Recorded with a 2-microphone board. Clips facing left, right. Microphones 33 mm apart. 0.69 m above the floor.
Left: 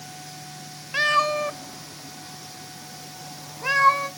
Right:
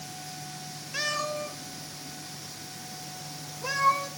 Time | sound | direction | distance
0.9 | a cat meowing | 35° left (ahead or behind) | 0.6 m